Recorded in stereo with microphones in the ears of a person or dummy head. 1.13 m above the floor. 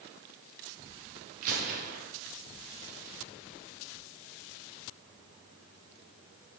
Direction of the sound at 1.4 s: 45° right (ahead or behind).